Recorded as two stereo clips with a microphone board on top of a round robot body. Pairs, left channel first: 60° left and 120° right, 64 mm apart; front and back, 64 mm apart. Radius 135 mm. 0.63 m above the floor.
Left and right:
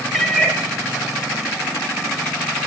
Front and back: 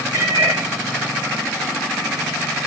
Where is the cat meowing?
150° left, 1.4 m.